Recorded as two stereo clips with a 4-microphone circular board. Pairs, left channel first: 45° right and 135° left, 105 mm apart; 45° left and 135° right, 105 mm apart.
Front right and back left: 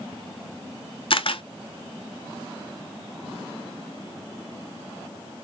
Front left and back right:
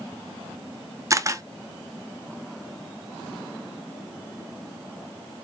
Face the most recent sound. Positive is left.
turn(degrees=-75)